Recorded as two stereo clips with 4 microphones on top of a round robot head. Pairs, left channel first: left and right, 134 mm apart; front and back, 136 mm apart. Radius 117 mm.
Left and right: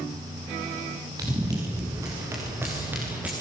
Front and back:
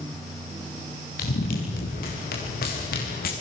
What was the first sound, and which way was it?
Running footsteps, 20° right.